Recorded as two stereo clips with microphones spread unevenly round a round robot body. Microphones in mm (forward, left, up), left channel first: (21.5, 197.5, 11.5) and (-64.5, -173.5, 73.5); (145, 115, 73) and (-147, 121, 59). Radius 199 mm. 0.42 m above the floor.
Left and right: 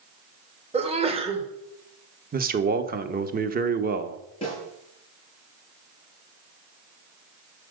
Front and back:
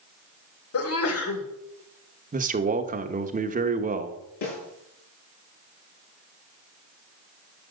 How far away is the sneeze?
About 1.7 m.